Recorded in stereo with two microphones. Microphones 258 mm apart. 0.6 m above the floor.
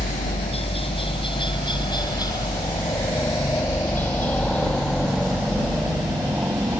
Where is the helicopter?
25° left (ahead or behind); by 6.8 s 5° right (ahead or behind).